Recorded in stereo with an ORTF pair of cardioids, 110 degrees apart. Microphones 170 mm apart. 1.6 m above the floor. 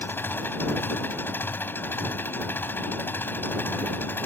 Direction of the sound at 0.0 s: 10° left.